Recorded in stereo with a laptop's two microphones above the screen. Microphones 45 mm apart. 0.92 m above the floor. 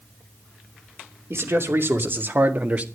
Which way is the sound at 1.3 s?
65° right (ahead or behind).